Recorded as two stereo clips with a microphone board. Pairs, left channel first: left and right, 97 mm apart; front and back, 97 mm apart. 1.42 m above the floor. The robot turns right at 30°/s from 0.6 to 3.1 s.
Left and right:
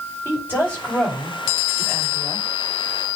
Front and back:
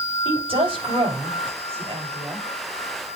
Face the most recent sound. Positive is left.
turn(degrees=-125)